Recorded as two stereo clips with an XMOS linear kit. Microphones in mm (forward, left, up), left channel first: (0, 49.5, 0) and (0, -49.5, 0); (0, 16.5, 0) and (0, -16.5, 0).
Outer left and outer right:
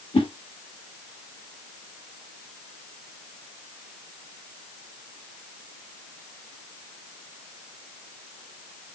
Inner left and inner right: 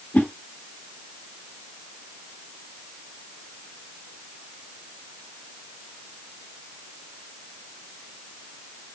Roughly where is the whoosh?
Left.